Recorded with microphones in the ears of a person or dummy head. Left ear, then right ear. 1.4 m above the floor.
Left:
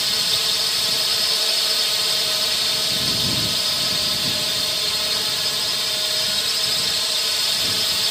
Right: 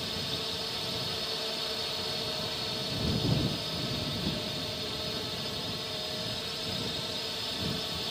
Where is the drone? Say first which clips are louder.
Left 14 dB; 55° left (ahead or behind).